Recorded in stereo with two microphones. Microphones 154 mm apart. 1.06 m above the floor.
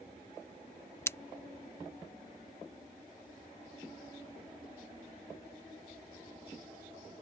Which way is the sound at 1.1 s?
15° left (ahead or behind).